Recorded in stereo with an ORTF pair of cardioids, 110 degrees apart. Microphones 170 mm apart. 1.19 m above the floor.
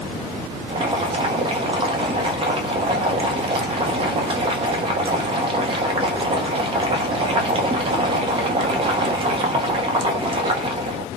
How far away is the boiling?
About 0.8 m.